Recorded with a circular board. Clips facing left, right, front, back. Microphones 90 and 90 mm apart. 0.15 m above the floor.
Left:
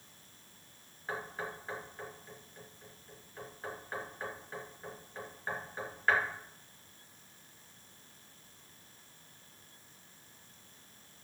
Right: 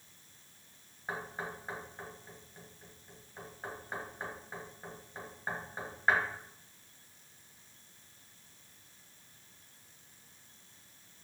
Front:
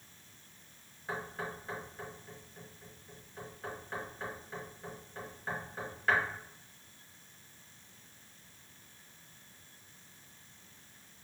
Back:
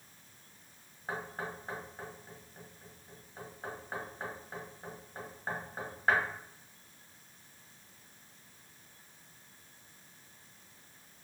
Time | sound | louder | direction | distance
1.1 | knocking | even, even | 160° right | 1.5 m